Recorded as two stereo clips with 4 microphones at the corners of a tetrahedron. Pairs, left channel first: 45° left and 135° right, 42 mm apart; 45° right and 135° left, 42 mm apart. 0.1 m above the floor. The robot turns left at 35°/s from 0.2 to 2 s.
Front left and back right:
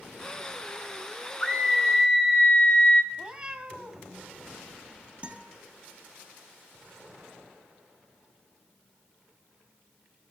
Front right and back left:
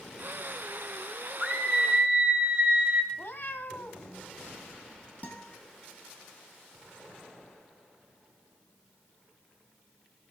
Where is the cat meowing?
75° right, 1.5 m.